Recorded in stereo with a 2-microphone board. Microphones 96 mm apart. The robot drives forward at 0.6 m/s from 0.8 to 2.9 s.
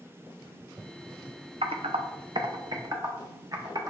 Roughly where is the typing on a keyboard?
Right.